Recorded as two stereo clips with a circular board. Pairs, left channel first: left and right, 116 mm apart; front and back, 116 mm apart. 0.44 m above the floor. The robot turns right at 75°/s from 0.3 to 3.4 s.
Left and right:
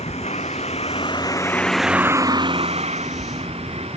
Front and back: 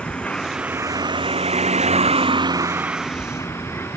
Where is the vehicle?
80° left; by 4.0 s 70° right.